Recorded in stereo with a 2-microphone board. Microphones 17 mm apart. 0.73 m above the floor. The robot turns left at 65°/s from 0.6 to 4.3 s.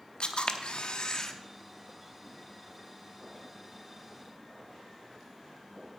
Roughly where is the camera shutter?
Left.